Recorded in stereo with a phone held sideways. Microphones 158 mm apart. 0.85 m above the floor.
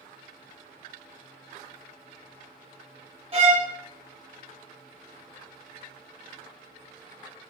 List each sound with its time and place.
3.3 s a violin: 40° right (ahead or behind), 0.8 m